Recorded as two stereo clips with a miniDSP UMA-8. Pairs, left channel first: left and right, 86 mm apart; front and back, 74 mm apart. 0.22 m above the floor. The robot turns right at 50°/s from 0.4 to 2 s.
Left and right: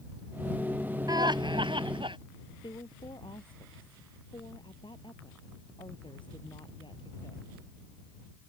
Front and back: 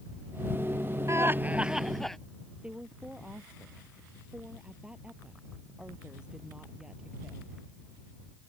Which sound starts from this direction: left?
A woman speaking, at 2.6 s.